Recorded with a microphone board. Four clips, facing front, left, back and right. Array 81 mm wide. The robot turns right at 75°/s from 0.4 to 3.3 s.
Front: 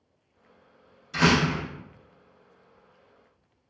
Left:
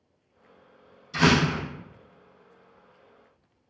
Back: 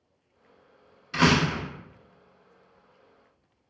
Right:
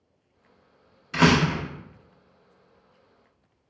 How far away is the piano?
I don't hear a piano.